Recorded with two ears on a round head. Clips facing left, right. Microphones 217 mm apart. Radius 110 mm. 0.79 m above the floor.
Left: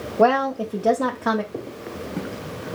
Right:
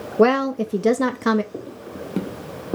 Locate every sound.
0.2 s a woman speaking: 30° right (ahead or behind), 0.5 m
1.5 s footsteps: 15° right (ahead or behind), 1.4 m; by 2.8 s 70° right (ahead or behind), 2.0 m